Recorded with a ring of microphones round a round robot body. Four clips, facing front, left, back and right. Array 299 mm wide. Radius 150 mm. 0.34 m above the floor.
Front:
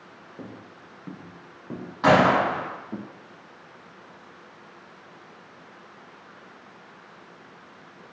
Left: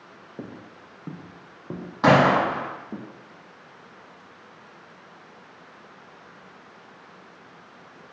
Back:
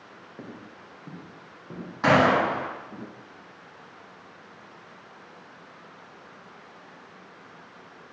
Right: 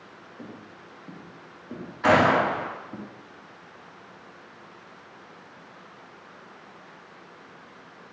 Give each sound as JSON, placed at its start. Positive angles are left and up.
{"t": 0.4, "sound": "footsteps", "azimuth_deg": 90, "distance_m": 3.0}
{"t": 2.0, "sound": "a gunshot", "azimuth_deg": 95, "distance_m": 5.5}